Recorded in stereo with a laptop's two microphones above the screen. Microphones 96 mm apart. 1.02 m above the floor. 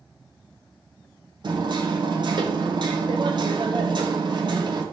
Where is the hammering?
55° right (ahead or behind), 1.9 m.